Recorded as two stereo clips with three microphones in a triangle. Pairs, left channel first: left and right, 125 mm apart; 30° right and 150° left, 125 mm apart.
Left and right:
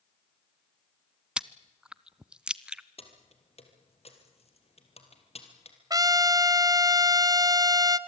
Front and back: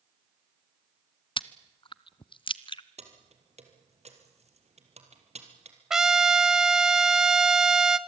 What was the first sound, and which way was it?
Chewing, 10° right.